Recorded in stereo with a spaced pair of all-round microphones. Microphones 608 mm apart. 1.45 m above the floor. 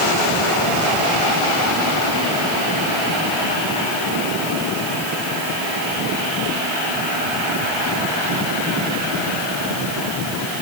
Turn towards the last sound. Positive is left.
No sound to turn to.